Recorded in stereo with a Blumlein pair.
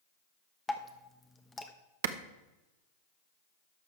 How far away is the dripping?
About 1.0 m.